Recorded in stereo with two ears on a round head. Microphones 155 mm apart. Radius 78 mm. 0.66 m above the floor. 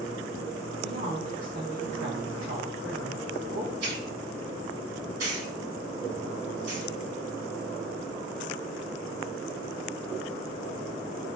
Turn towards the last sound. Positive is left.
turn(degrees=-70)  # may be behind; listen again after turning